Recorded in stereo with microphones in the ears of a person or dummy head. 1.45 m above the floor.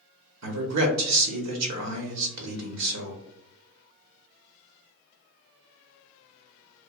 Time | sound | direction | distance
0.4 | a man speaking | 80° right | 0.8 m